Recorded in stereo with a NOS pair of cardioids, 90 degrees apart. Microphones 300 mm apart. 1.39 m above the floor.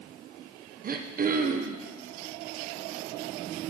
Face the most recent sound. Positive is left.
turn(degrees=-30)